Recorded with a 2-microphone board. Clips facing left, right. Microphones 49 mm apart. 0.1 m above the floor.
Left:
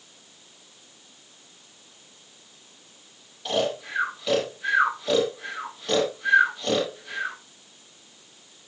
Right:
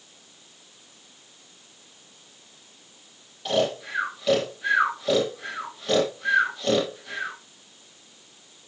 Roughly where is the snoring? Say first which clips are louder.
Right 2 dB; centre.